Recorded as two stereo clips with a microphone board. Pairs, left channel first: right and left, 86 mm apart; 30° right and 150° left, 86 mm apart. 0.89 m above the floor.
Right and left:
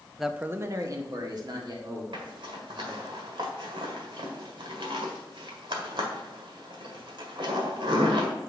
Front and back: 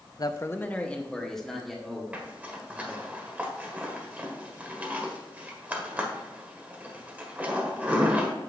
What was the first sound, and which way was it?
A man speaking, straight ahead.